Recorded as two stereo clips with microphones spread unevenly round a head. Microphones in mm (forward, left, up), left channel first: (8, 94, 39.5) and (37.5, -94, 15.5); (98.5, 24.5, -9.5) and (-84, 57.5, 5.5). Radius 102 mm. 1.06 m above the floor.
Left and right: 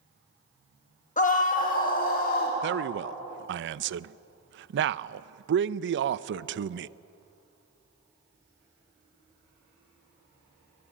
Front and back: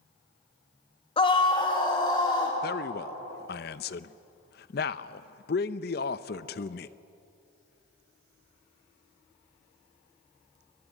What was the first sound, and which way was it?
A scream, 50° left.